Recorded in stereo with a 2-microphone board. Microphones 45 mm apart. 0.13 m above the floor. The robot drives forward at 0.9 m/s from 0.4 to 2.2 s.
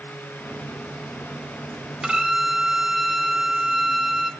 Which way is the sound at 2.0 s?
15° right (ahead or behind).